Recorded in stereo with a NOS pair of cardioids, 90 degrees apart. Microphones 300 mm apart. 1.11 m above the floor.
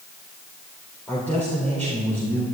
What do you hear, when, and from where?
1.1 s a man speaking: 5° left, 4 m